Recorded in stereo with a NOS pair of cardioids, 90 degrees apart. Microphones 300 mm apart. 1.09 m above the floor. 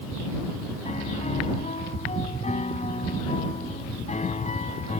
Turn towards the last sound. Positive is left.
turn(degrees=25)